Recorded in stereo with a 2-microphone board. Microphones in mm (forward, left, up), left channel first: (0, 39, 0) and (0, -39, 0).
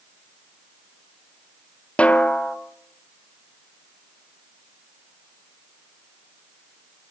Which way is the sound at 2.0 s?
15° left (ahead or behind).